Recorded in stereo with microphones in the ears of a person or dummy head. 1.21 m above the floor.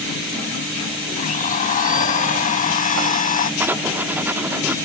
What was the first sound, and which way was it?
A blender, 40° left (ahead or behind).